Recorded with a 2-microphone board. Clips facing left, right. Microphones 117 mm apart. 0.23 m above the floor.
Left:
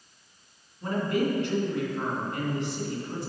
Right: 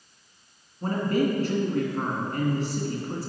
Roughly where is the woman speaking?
Right.